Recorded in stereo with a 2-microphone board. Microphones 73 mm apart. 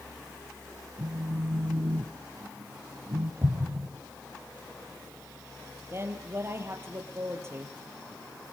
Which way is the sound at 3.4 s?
40° right (ahead or behind).